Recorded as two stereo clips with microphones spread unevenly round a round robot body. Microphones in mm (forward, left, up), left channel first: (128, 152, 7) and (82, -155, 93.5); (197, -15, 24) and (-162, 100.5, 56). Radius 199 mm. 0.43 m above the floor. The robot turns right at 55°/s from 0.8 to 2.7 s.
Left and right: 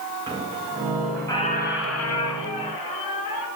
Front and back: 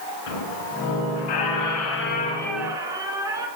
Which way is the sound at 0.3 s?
25° right.